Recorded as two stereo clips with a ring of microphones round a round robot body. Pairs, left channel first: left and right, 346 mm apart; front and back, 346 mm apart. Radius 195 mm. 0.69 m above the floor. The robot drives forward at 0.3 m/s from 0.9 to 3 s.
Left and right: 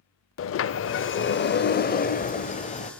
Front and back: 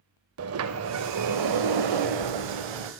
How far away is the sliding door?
About 0.5 m.